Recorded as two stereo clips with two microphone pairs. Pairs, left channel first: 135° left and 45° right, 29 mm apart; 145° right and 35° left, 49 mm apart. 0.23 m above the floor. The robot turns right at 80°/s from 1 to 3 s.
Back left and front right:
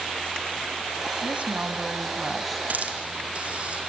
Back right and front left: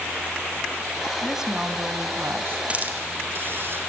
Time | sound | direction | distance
1.2 | a woman speaking | 55° right | 1.6 m
2.7 | a hiss | 25° right | 3 m